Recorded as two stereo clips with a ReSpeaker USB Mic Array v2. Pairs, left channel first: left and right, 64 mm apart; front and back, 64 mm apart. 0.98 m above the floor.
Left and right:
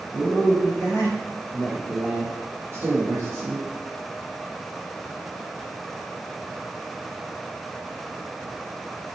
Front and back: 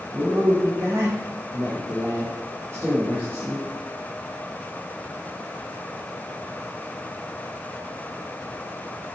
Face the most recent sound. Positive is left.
turn(degrees=-115)